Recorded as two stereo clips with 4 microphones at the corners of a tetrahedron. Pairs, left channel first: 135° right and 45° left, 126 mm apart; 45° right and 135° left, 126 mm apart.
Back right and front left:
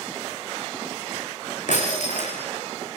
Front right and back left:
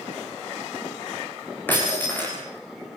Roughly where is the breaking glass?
Behind right.